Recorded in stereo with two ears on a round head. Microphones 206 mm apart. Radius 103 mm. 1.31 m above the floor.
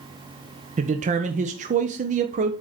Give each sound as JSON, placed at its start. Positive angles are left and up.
{"t": 0.8, "sound": "a man speaking", "side_deg": -30, "distance_m": 0.6}